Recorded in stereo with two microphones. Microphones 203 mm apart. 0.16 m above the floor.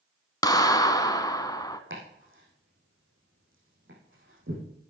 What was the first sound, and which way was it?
A clap, 20° left (ahead or behind).